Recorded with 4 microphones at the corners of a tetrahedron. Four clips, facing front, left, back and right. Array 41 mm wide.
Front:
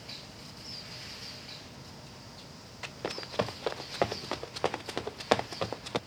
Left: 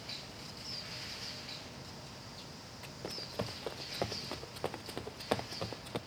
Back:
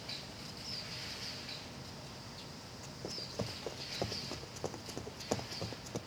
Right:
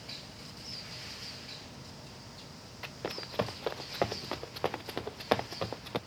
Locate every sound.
2.8 s running footsteps: 25° right; by 6.0 s 15° right